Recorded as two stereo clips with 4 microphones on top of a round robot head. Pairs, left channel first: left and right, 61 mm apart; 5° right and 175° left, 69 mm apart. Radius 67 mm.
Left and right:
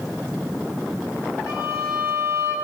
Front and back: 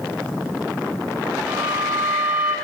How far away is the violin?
About 4.5 m.